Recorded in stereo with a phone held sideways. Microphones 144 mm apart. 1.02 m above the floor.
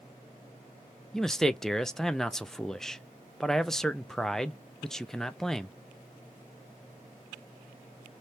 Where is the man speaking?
5° left (ahead or behind), 0.5 m.